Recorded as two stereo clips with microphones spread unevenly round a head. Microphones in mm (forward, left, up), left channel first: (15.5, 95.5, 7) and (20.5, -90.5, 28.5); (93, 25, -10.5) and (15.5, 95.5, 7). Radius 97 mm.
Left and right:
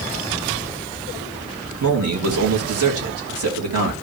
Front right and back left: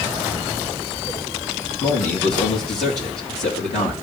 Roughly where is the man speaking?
Right.